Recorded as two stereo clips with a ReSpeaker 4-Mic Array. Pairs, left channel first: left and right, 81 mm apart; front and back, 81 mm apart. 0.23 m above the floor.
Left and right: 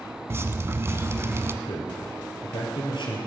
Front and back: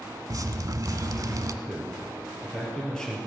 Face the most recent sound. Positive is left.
turn(degrees=85)